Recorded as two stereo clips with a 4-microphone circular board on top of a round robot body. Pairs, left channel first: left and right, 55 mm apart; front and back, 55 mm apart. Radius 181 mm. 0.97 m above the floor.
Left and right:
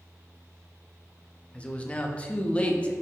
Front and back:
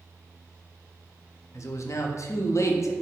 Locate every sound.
1.5 s a man speaking: 25° left, 0.7 m